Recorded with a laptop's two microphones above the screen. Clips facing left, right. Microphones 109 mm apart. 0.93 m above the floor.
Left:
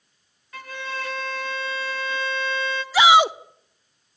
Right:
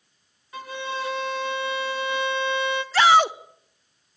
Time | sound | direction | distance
0.5 | a violin | 20° right (ahead or behind) | 0.8 m
2.9 | a shout | 10° left (ahead or behind) | 0.5 m